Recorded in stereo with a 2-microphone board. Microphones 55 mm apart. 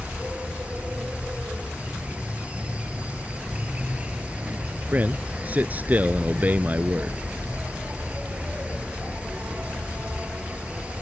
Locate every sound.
0.0 s an insect: 25° right (ahead or behind)
4.9 s a man speaking: 30° right (ahead or behind)